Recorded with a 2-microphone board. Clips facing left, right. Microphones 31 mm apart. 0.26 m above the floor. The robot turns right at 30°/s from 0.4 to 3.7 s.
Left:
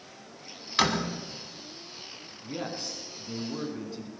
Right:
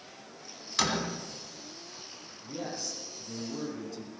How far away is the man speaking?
About 3 m.